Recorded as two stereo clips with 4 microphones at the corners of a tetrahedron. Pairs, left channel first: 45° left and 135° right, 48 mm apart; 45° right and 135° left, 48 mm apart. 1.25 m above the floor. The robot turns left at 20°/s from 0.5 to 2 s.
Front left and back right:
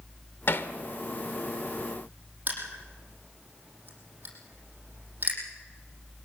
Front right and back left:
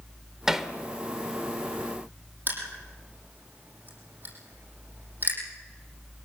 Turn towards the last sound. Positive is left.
turn(degrees=175)